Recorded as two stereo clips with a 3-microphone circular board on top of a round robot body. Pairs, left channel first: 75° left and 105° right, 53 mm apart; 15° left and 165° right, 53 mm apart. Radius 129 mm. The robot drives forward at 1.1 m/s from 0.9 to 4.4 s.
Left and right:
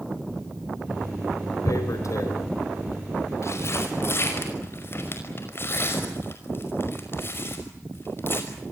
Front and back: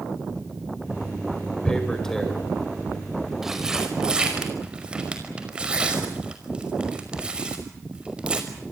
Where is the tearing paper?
90° left, 4.5 m; by 8.7 s 120° left, 5.5 m.